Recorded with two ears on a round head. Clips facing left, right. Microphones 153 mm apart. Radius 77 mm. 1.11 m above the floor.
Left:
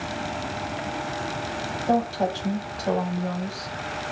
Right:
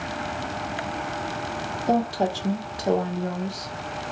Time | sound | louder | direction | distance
1.9 | a woman speaking | even | 20° right (ahead or behind) | 0.9 m